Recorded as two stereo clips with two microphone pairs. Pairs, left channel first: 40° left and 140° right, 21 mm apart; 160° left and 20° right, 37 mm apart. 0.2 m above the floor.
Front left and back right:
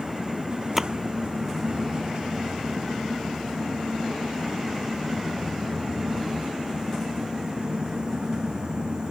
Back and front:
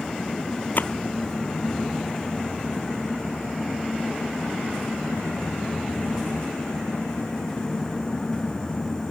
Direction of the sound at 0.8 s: 135° left.